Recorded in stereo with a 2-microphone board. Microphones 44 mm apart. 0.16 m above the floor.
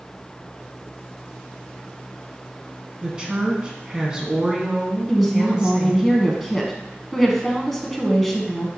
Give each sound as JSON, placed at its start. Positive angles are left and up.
{"t": 3.0, "sound": "a woman speaking", "side_deg": -20, "distance_m": 1.5}
{"t": 5.1, "sound": "a woman speaking", "side_deg": 0, "distance_m": 1.1}